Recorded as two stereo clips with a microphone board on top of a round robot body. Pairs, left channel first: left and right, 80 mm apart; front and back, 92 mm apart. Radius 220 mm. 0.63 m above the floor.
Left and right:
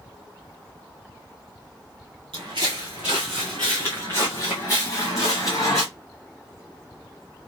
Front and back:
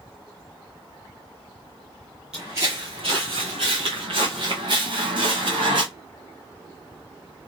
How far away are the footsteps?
About 0.7 m.